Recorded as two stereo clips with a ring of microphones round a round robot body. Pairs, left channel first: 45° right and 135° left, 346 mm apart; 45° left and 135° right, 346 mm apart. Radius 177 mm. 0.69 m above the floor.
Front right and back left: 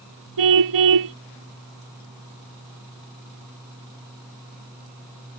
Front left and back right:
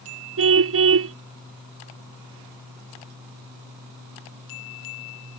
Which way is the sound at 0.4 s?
170° left.